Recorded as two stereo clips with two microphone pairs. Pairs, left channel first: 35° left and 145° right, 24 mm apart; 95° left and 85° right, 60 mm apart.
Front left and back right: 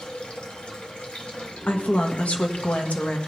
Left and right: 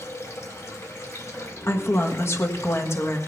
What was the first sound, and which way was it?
Running water, 65° left.